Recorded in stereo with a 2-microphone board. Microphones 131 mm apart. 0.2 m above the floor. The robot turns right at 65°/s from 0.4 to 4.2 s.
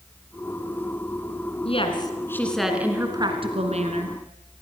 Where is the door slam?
No door slam in this recording.